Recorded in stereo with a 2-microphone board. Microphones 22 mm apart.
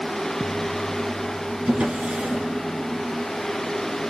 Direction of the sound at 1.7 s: 80° right.